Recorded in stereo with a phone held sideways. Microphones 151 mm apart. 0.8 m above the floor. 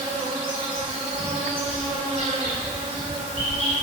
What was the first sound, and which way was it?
An insect, 40° right (ahead or behind).